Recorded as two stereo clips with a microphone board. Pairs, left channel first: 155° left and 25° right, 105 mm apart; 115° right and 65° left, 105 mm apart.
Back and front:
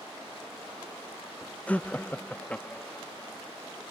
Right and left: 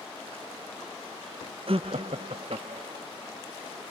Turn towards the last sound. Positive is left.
turn(degrees=80)